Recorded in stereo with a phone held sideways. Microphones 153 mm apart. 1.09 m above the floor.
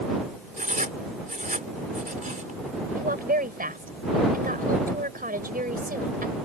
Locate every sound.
0.6 s writing: 60° right (ahead or behind)
3.0 s a woman speaking: 70° right (ahead or behind)